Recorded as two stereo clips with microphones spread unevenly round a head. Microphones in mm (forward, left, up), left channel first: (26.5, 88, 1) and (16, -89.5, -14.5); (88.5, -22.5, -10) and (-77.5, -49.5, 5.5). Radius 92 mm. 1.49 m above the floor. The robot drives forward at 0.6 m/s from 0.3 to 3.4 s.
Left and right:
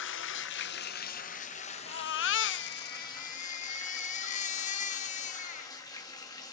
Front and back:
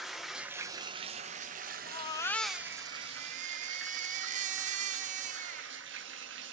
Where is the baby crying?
70° left, 0.7 m; by 5.7 s 140° left, 0.9 m.